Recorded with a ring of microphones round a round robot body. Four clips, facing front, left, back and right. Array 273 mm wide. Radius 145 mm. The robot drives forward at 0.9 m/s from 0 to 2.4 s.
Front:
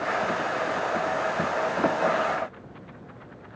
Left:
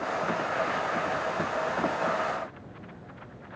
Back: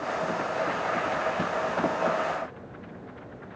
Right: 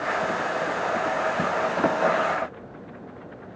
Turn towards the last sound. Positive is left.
No sound to turn to.